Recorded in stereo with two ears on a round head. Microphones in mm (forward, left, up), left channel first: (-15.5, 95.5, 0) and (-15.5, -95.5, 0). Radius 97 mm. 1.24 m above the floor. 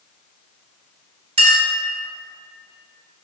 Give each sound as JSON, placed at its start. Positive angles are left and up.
{"t": 1.4, "sound": "a clink", "side_deg": -25, "distance_m": 1.4}